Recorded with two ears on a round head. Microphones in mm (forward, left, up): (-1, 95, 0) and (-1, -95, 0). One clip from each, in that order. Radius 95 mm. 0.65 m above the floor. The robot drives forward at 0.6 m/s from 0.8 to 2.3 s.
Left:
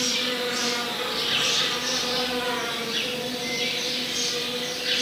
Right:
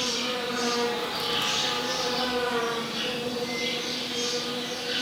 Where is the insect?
65° left (ahead or behind), 5 m; by 5.0 s 60° left (ahead or behind), 5.5 m.